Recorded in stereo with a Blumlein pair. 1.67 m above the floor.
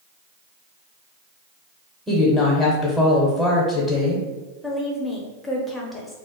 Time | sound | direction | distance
2.1 | a woman speaking | straight ahead | 0.9 m
4.6 | a woman speaking | 10° left | 0.9 m